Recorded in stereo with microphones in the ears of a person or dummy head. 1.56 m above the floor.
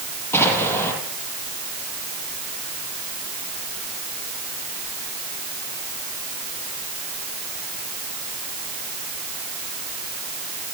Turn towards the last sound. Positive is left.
turn(degrees=10)  # may be behind; listen again after turning